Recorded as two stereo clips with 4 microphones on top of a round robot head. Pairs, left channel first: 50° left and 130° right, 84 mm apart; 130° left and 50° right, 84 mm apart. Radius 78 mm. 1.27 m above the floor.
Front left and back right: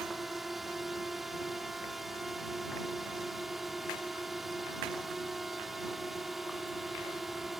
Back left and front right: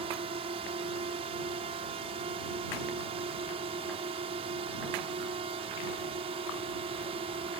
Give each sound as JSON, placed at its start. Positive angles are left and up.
{"t": 0.0, "sound": "a drone", "azimuth_deg": -40}